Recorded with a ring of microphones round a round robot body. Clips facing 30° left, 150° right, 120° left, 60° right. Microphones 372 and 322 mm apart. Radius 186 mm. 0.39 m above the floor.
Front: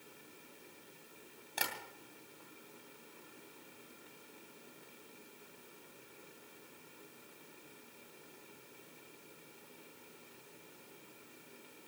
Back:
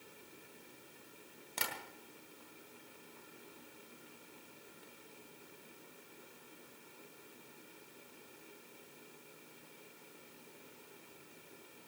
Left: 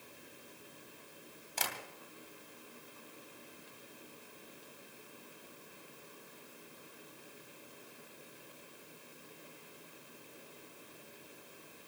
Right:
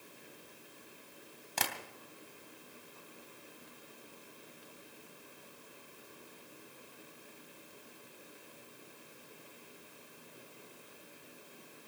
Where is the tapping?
65° right, 3 m.